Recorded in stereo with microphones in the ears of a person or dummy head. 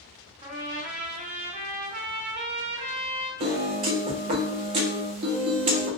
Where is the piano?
35° right (ahead or behind), 0.5 m.